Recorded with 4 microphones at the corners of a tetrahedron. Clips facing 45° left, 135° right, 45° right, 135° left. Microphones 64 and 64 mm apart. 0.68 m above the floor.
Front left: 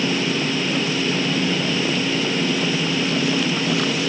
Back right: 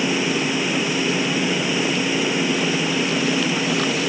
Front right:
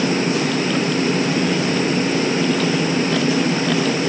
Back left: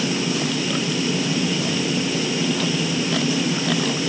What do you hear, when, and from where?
Only background noise.